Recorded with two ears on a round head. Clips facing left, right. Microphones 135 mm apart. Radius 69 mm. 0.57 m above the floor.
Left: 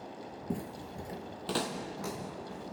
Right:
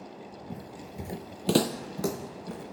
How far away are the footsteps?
About 0.7 m.